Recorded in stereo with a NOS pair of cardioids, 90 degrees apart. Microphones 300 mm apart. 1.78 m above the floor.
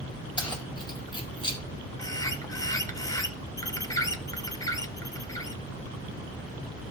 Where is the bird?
10° left, 1.0 m.